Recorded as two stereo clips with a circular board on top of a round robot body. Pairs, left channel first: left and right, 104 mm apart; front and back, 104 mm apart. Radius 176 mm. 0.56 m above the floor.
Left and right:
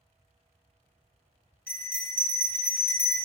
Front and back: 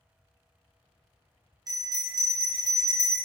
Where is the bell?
155° left, 1.0 m.